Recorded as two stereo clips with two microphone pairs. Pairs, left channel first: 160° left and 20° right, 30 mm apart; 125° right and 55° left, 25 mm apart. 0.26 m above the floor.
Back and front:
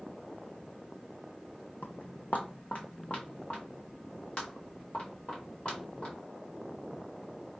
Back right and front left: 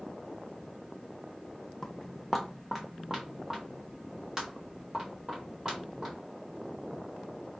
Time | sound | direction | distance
1.8 | footsteps | 165° left | 0.6 m